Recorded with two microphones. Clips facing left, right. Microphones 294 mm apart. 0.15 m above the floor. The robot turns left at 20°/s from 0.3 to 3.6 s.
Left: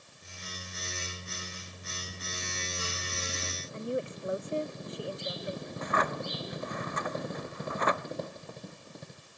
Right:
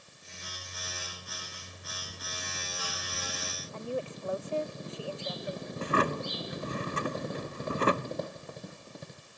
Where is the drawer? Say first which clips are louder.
Right 5 dB; 35° right (ahead or behind).